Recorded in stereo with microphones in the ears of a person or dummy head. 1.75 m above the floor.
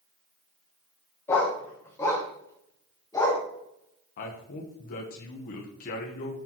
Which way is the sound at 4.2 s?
50° left (ahead or behind).